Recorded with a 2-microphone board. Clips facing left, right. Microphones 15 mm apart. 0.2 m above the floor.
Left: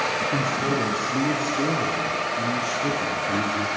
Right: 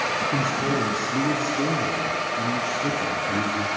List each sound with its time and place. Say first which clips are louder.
0.3 s a man speaking: even; 25° right (ahead or behind), 2.5 m; by 3.7 s 25° left (ahead or behind), 3.5 m